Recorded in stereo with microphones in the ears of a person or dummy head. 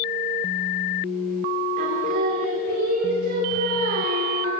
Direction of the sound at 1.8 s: 55° right (ahead or behind).